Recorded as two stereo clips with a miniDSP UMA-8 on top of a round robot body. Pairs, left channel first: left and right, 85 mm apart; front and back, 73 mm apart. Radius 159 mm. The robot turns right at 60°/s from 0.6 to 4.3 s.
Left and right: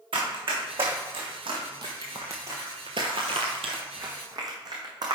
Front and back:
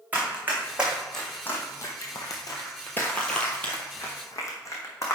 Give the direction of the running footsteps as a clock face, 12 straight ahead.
4 o'clock.